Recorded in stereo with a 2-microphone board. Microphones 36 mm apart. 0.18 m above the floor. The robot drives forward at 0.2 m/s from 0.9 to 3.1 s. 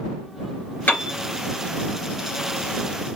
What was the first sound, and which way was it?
A piano, 60° left (ahead or behind).